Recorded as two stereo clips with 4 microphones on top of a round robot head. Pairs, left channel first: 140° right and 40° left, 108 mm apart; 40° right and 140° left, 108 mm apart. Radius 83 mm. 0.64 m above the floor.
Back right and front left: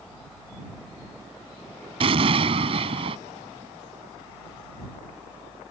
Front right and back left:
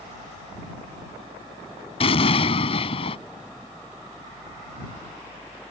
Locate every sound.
2.0 s an explosion: straight ahead